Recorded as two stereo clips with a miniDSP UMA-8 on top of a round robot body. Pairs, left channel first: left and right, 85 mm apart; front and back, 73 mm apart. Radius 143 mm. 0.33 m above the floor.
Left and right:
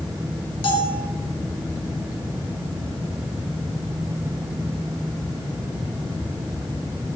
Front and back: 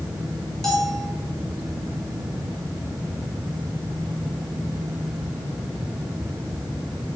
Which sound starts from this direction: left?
A bell, at 0.6 s.